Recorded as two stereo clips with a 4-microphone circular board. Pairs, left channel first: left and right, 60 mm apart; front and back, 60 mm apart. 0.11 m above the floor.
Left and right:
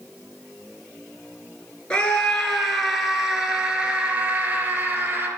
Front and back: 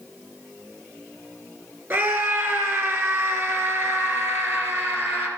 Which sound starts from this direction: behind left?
A scream, at 1.9 s.